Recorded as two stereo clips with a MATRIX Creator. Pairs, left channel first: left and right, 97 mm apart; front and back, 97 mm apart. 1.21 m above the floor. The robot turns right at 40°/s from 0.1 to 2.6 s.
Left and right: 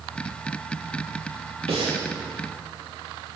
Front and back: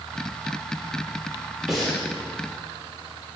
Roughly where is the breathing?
Right.